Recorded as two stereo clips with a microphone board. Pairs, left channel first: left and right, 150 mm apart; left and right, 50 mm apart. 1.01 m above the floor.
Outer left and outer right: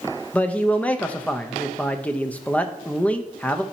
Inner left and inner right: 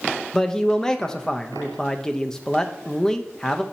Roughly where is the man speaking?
Centre.